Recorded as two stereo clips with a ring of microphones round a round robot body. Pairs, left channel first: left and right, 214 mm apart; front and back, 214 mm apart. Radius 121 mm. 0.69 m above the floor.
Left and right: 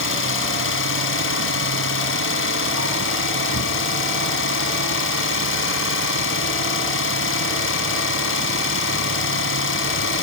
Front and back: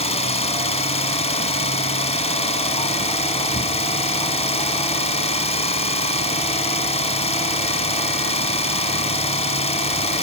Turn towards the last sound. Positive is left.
turn(degrees=60)